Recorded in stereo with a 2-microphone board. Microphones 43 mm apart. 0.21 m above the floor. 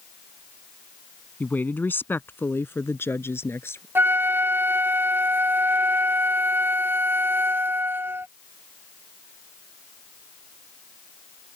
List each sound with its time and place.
1.4 s a woman speaking: 40° left (ahead or behind); by 3.9 s 65° left (ahead or behind)
4.0 s a flute: 55° right (ahead or behind)